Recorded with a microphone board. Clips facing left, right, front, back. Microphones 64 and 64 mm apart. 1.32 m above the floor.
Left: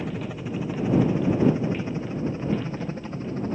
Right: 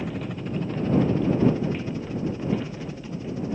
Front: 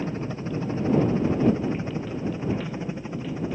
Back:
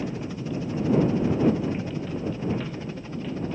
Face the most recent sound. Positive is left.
turn(degrees=65)